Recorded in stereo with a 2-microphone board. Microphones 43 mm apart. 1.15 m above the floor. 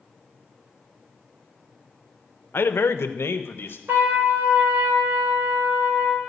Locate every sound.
2.5 s a man speaking: 55° left (ahead or behind), 0.6 m; by 3.8 s 60° left (ahead or behind), 1.1 m
3.9 s a trumpet: 80° right, 3 m